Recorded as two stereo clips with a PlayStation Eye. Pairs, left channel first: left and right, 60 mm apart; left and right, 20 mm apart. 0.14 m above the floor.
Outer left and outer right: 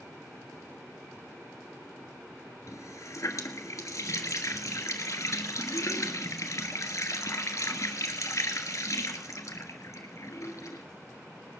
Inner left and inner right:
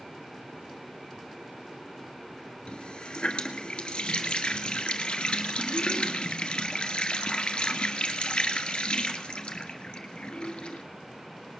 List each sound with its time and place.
2.7 s a running tap: 55° left (ahead or behind), 1.4 m